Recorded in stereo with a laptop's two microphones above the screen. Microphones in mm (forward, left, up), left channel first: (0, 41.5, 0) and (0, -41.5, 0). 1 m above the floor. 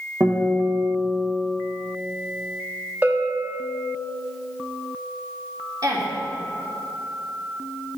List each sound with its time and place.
0.2 s a guitar: 50° right (ahead or behind), 1.2 m
3.0 s a bell: 20° right (ahead or behind), 0.8 m
5.8 s a woman speaking: 45° right (ahead or behind), 1.7 m